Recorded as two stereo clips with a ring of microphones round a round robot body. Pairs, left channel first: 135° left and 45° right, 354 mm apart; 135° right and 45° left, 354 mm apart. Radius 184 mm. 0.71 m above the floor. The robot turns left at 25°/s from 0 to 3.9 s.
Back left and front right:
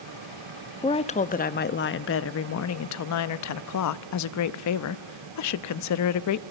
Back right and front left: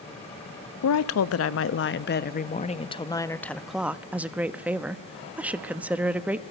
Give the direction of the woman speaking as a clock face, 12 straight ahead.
5 o'clock.